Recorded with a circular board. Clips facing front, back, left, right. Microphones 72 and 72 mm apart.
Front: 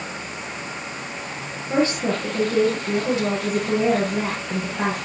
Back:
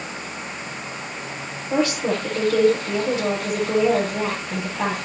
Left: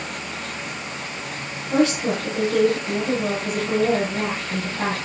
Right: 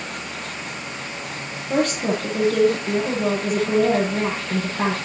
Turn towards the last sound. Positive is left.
turn(degrees=-60)